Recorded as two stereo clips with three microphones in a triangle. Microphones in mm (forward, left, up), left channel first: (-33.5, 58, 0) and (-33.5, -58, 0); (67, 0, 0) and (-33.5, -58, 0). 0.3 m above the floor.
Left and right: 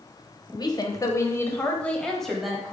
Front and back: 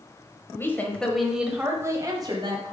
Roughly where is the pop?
I don't hear a pop.